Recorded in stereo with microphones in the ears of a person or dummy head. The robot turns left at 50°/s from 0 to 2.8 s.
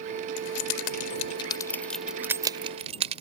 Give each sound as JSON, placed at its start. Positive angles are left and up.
{"t": 0.4, "sound": "keys jangling", "side_deg": 80}